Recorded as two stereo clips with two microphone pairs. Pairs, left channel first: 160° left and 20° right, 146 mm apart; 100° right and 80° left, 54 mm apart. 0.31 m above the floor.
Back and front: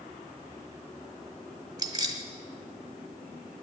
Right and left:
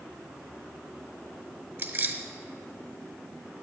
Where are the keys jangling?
40° left, 1.1 m.